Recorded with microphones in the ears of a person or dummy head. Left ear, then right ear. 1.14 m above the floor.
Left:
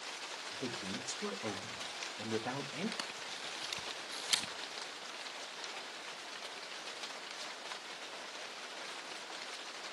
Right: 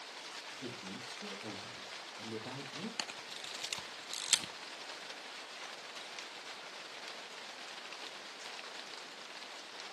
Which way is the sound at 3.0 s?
25° right (ahead or behind).